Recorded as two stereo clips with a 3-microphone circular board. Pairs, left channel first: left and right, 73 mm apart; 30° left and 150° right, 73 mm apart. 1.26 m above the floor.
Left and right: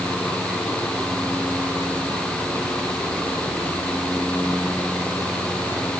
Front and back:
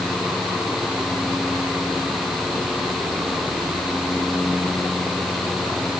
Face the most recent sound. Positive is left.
No sound to turn to.